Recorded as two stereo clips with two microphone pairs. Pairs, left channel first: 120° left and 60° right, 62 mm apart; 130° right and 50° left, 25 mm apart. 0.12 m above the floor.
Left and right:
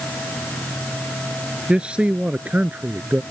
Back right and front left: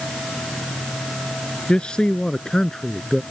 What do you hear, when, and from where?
1.7 s a man speaking: 125° right; by 3.2 s 70° right